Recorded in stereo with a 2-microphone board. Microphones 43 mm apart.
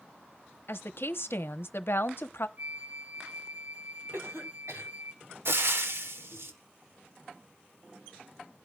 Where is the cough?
80° right, 4.5 m.